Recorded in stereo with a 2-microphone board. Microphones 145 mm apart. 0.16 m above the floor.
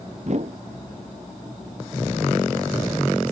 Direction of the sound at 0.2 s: 55° right (ahead or behind).